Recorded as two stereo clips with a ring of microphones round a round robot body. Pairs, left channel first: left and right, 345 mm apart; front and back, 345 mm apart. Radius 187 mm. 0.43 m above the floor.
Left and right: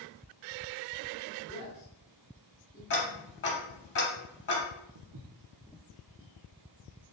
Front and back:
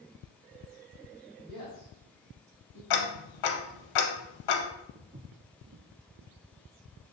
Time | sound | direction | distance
1.5 | a man speaking | 145° left | 1.6 m
2.9 | ticking | 30° left | 0.7 m
5.0 | footsteps | 115° right | 0.7 m